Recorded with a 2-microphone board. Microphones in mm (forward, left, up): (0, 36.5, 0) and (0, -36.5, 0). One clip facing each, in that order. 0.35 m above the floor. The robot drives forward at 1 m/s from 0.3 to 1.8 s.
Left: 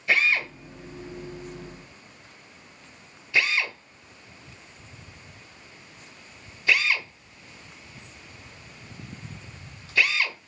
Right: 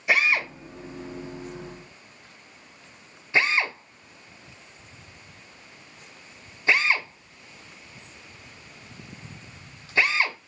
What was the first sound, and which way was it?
A drill, 15° right (ahead or behind).